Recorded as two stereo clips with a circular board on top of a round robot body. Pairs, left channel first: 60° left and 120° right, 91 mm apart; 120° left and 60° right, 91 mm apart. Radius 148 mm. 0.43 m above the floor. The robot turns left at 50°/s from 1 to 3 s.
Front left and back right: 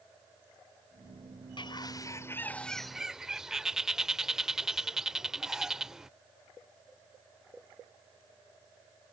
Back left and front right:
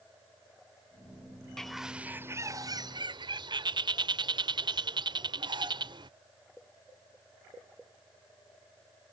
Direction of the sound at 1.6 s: 35° left.